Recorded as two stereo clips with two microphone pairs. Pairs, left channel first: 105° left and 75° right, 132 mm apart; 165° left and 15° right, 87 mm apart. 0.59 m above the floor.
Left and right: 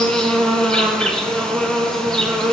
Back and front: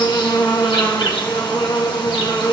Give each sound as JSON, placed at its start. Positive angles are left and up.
{"t": 0.0, "sound": "an insect", "azimuth_deg": -170, "distance_m": 4.5}